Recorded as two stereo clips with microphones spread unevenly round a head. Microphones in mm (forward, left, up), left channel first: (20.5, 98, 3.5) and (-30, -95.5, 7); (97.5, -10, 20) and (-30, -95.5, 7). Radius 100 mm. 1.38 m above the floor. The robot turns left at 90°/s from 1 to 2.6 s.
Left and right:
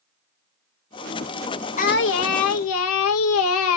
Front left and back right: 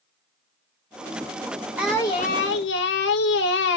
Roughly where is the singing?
Behind left.